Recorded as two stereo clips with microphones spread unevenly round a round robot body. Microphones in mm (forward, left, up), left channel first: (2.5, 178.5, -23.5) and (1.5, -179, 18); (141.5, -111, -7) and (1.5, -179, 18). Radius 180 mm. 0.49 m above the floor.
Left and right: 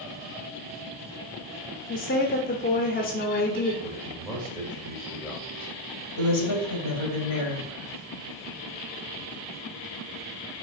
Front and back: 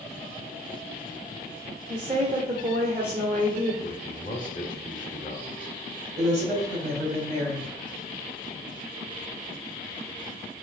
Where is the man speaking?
5° left, 2.0 m.